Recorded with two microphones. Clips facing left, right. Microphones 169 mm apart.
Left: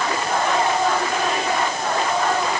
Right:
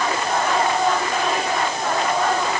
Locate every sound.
Only background noise.